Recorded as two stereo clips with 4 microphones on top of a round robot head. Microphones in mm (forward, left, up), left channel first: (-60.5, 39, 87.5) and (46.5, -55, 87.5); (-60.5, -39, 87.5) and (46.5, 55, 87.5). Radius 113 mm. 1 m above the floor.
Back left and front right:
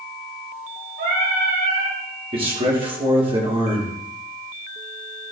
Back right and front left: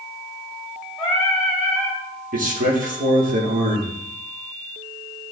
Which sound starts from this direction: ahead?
A man speaking, at 2.3 s.